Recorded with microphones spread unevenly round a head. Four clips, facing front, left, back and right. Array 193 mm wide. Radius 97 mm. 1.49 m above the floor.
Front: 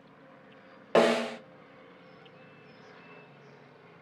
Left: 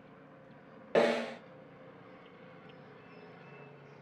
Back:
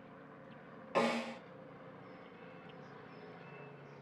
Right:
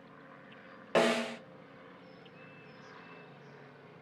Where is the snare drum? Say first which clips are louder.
Even, front 10 dB; 10° left, 0.5 m.